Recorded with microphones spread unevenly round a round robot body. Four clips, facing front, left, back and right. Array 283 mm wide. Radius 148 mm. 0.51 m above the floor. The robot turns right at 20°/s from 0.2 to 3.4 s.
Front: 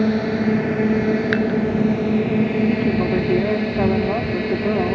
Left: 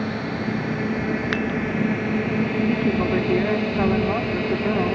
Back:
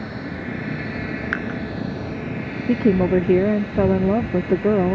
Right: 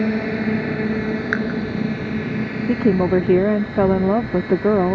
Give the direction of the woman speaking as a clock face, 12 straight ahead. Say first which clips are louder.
Right 4 dB, back 1 dB; 4 o'clock.